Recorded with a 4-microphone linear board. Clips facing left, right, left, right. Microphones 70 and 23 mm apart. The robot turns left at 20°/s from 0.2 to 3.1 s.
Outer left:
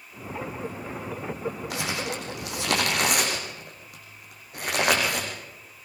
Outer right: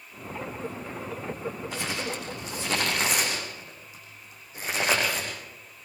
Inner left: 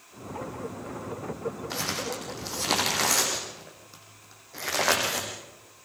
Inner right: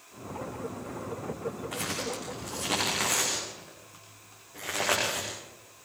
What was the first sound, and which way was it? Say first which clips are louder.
Crumpling: outer left 2 dB, inner left 3 dB; 80° left.